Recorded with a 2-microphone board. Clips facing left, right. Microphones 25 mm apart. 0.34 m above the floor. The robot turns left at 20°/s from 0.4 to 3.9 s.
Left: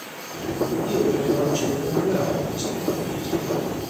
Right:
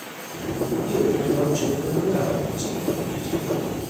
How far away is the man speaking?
About 1.0 m.